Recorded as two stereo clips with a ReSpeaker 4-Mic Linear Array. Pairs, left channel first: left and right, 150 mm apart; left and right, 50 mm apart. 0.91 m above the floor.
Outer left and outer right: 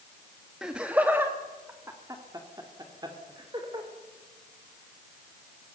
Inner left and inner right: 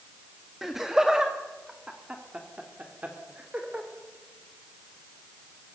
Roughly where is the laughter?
Centre.